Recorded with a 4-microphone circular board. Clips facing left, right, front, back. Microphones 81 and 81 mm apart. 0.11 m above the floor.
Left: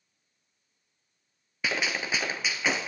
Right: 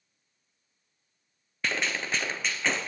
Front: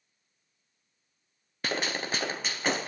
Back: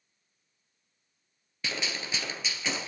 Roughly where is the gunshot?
Ahead.